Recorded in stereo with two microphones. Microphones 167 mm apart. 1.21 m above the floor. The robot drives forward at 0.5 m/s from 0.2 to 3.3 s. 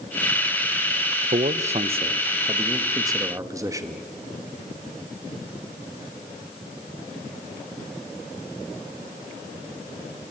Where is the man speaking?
55° right (ahead or behind), 0.6 m; by 4.0 s 20° right (ahead or behind), 1.4 m.